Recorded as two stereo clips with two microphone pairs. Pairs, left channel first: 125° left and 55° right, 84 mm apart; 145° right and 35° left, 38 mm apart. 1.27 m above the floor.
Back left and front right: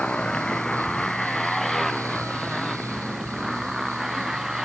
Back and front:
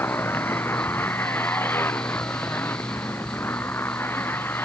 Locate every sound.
0.0 s a motorcycle: 155° right; by 4.7 s 140° right